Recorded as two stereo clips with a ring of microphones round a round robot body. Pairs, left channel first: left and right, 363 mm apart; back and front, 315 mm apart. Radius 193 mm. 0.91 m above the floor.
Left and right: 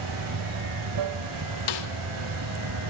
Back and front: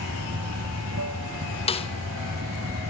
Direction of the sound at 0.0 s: 55° right.